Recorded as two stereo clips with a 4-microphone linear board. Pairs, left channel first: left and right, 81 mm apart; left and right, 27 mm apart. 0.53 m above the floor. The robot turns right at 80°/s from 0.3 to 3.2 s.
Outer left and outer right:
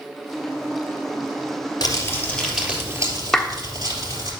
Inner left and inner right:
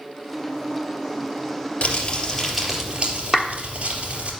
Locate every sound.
1.8 s crumpling: 120° left, 3 m; by 4.3 s 125° right, 3 m
3.3 s a clap: 5° left (ahead or behind), 0.6 m